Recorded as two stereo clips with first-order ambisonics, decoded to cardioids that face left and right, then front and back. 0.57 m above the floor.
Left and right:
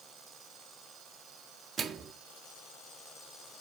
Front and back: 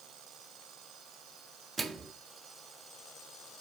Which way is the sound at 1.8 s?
120° right.